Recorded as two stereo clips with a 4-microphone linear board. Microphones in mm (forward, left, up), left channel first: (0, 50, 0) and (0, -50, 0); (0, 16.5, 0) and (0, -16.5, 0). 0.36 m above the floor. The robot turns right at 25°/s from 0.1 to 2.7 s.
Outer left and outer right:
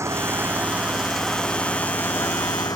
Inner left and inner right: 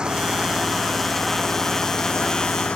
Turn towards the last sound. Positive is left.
turn(degrees=40)